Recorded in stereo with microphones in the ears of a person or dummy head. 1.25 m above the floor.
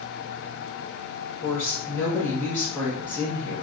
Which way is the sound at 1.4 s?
10° left (ahead or behind).